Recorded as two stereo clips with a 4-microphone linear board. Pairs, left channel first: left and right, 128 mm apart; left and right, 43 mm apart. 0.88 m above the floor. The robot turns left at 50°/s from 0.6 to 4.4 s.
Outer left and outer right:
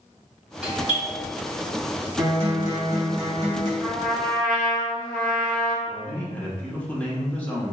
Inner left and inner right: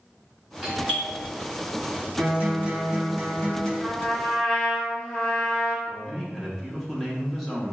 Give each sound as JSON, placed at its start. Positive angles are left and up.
{"t": 0.6, "sound": "a doorbell", "side_deg": -10, "distance_m": 1.7}
{"t": 2.2, "sound": "a guitar", "azimuth_deg": -125, "distance_m": 1.7}
{"t": 3.8, "sound": "a trumpet", "azimuth_deg": -160, "distance_m": 1.3}
{"t": 5.9, "sound": "a man speaking", "side_deg": 10, "distance_m": 1.1}